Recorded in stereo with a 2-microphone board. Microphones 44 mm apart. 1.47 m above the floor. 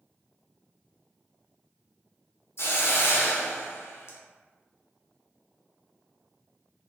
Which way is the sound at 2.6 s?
70° left (ahead or behind).